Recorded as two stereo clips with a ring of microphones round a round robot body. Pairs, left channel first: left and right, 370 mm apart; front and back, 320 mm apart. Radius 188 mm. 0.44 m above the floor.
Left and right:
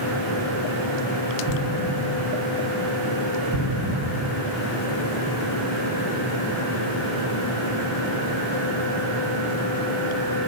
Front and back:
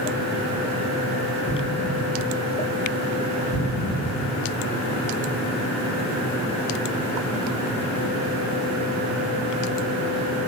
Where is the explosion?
35° right, 2.0 m.